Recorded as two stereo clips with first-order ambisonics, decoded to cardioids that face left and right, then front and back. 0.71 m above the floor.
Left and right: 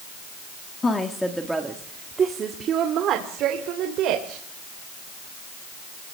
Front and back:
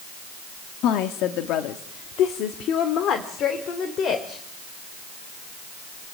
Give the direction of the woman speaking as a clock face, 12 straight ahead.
11 o'clock.